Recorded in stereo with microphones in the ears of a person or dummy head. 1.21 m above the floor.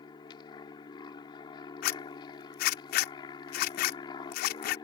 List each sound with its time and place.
0.0 s an aircraft: 30° left (ahead or behind)
1.8 s a zipper: 45° left (ahead or behind)